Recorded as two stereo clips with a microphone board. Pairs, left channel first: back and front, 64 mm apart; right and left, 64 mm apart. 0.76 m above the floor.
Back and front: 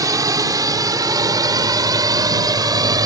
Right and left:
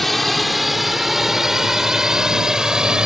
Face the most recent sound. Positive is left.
turn(degrees=10)